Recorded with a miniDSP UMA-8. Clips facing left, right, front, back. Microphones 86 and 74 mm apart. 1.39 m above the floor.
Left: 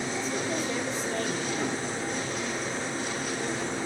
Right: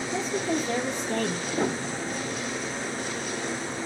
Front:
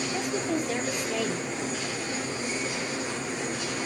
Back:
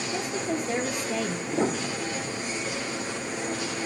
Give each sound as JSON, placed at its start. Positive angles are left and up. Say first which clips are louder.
{"t": 0.1, "sound": "a woman speaking", "louder": "right 6 dB, back 1 dB", "azimuth_deg": -110, "distance_m": 1.5}
{"t": 1.5, "sound": "a piano", "louder": "right 3 dB, back 5 dB", "azimuth_deg": -150, "distance_m": 0.6}